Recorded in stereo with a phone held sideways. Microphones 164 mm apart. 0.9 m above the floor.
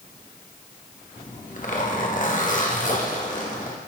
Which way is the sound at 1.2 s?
50° left (ahead or behind).